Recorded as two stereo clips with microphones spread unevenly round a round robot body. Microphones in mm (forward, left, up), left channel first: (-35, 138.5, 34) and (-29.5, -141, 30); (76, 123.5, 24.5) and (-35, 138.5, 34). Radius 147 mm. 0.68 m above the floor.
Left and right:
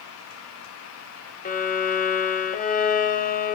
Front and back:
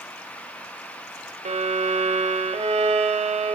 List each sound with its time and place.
1.4 s a violin: 155° left, 1.1 m